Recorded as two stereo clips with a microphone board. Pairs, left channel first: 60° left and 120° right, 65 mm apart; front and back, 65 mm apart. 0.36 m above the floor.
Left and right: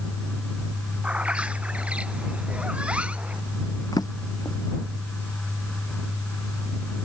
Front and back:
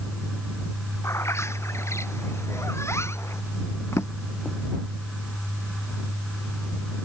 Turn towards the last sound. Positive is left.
turn(degrees=45)